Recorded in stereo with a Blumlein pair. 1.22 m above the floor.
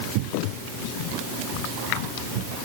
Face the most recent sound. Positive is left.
No sound to turn to.